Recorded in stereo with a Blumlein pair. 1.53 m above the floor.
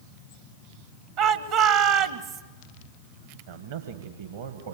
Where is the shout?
50° right, 1.1 m.